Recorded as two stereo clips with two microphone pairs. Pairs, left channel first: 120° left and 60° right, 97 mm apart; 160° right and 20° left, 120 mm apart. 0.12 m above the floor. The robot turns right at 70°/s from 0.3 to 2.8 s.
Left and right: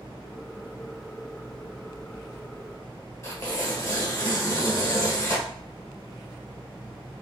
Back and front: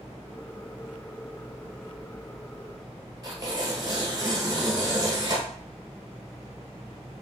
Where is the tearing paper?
75° left, 1.3 m.